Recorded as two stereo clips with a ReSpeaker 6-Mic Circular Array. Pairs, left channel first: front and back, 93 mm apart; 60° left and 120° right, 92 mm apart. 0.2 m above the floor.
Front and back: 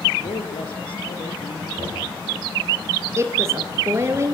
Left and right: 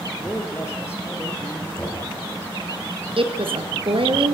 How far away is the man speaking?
About 5 m.